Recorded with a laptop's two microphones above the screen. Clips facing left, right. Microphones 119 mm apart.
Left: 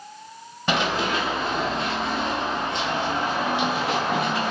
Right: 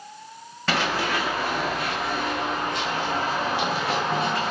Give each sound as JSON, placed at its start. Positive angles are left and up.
{"t": 0.7, "sound": "running footsteps", "side_deg": 20, "distance_m": 1.0}